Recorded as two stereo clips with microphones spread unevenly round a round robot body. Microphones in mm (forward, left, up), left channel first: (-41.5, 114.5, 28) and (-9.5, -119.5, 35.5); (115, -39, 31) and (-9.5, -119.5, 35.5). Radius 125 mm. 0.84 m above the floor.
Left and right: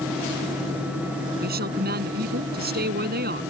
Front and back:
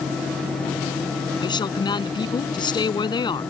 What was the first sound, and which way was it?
A woman speaking, 30° right.